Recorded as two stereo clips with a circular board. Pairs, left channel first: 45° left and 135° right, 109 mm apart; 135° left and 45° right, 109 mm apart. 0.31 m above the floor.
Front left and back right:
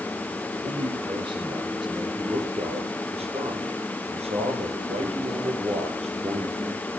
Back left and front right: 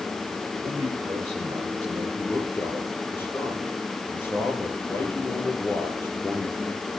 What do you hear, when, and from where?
0.6 s a man speaking: 100° right, 4.5 m
2.2 s a man speaking: 155° right, 6 m